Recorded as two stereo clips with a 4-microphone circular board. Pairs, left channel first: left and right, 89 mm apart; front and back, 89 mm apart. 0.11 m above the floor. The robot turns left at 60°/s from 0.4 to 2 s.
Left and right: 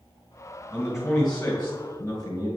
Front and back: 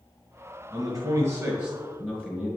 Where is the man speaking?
160° right, 1.6 m; by 2.5 s 120° left, 1.6 m.